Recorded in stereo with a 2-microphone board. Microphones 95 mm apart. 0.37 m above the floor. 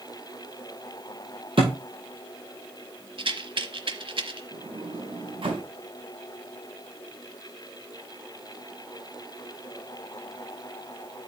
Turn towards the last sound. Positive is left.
turn(degrees=-60)  # may be behind; listen again after turning